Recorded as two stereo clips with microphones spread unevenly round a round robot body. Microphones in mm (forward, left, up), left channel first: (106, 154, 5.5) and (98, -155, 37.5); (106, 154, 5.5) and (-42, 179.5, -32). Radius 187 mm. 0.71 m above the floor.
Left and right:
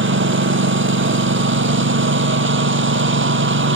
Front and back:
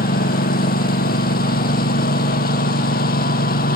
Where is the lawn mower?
40° right.